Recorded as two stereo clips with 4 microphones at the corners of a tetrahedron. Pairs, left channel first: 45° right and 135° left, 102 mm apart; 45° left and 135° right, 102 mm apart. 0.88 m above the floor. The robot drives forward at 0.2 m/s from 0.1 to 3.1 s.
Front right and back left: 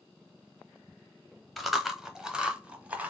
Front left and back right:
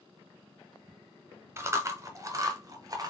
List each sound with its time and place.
1.6 s chewing: 135° right, 0.7 m; by 3.1 s 155° right, 0.9 m